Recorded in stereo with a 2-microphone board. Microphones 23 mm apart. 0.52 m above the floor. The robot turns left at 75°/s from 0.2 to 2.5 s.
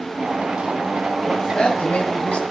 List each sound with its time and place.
1.3 s a man speaking: 160° left, 3 m; by 2.4 s 75° left, 3 m